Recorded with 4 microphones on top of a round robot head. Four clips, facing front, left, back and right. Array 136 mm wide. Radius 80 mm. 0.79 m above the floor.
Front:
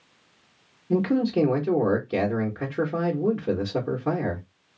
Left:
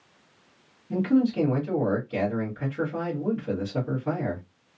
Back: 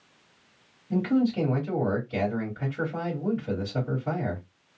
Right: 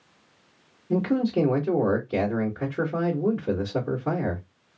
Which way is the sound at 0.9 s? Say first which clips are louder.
Left 1 dB, front 2 dB; 20° right.